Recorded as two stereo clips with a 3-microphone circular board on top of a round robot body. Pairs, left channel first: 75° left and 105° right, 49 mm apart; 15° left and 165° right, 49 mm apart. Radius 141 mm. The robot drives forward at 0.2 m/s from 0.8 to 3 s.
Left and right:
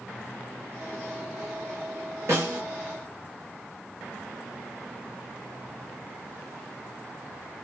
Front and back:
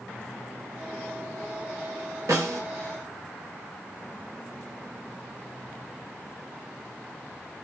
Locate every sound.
2.3 s a snare drum: 140° right, 0.7 m; by 2.6 s 145° right, 0.8 m